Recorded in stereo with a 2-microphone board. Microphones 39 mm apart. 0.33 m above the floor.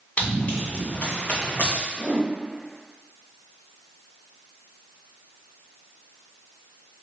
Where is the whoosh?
40° left (ahead or behind), 1.2 m.